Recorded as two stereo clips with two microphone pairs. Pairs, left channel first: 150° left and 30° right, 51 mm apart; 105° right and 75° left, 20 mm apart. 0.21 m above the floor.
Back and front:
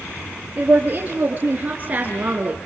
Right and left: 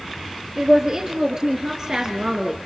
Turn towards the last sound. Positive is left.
turn(degrees=20)